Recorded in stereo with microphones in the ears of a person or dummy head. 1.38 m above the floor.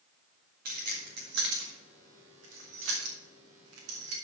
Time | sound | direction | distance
0.7 | keys jangling | 40° right (ahead or behind) | 1.7 m